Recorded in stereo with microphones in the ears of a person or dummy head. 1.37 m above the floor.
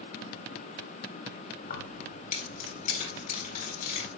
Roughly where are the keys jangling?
Left.